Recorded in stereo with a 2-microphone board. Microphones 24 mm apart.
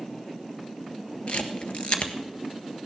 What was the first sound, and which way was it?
A camera shutter, 55° left (ahead or behind).